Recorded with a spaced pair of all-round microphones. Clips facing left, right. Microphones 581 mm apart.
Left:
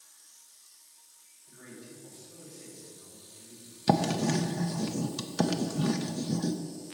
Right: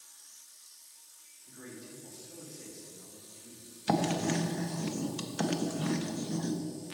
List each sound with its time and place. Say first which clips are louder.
1.5 s a man speaking: right 1 dB; 60° right (ahead or behind), 3 m
3.9 s writing: left 3 dB; 65° left (ahead or behind), 0.7 m